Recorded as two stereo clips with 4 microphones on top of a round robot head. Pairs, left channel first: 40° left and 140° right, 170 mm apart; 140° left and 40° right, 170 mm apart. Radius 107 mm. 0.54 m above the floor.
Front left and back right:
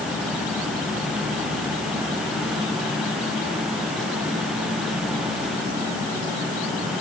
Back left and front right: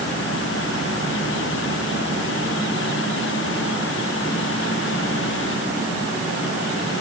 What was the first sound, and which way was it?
Only background noise.